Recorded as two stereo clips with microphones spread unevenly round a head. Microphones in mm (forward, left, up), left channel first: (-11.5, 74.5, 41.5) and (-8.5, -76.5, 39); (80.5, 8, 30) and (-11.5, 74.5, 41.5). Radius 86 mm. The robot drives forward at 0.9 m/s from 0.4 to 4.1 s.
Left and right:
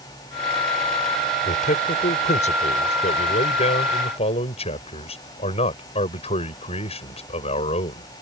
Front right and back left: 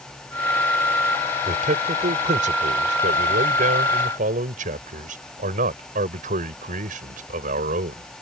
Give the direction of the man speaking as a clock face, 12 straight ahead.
8 o'clock.